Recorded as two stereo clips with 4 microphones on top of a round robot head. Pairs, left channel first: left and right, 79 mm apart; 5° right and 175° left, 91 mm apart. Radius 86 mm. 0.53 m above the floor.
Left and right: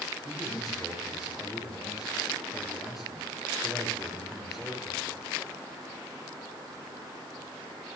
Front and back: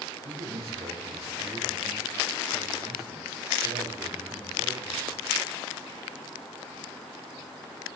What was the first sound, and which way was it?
A man speaking, 175° right.